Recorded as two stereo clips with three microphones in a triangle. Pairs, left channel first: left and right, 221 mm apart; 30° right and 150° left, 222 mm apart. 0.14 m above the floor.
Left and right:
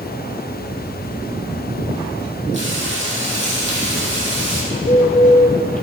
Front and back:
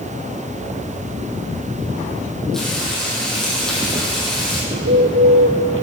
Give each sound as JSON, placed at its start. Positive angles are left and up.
{"t": 2.5, "sound": "frying", "azimuth_deg": -120, "distance_m": 3.0}
{"t": 4.7, "sound": "a bird", "azimuth_deg": 140, "distance_m": 1.1}